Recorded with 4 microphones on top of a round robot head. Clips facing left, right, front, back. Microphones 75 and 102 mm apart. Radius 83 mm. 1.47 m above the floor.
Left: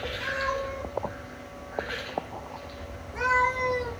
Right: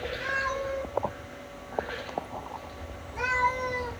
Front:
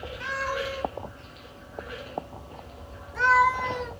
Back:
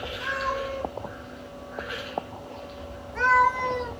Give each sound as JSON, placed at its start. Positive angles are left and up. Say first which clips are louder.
{"t": 0.2, "sound": "a cat meowing", "louder": "left 1 dB, back 1 dB", "azimuth_deg": 10, "distance_m": 3.0}